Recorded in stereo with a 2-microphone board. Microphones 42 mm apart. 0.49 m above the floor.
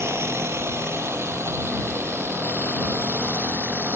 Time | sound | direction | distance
0.0 | a drone | 80° right | ?